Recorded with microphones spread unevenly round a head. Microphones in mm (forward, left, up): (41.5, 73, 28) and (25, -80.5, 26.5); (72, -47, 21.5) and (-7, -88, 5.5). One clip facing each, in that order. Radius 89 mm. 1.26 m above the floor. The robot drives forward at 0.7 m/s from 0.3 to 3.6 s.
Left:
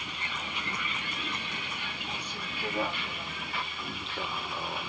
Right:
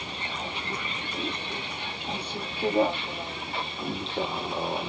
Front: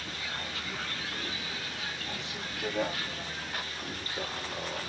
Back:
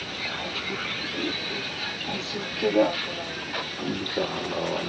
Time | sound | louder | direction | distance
0.0 | a vehicle | right 5 dB, back 6 dB | 165° right | ?